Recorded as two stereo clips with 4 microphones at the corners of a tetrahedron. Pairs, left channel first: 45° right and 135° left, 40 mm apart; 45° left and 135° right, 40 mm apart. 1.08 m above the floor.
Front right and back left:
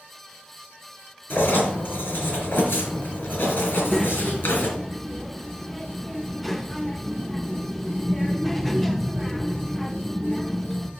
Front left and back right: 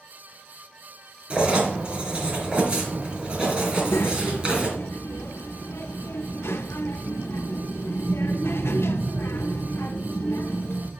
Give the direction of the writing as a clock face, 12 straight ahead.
3 o'clock.